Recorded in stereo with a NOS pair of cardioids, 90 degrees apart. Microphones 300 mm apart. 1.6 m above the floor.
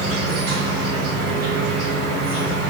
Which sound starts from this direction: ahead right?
An insect, at 0.0 s.